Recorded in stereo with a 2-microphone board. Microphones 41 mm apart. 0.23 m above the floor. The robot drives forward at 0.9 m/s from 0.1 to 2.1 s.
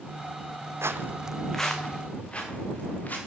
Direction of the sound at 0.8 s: 80° right.